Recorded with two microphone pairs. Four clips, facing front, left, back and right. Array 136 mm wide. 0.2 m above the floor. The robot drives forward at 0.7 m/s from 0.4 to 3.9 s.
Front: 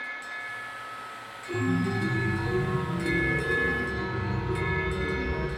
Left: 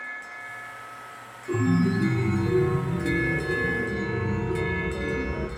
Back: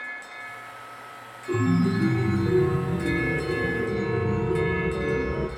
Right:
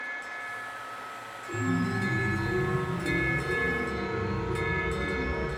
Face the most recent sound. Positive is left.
turn(degrees=165)